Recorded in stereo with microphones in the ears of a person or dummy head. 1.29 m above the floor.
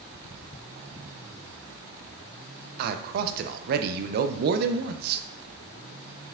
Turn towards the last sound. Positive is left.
turn(degrees=-55)  # may be behind; listen again after turning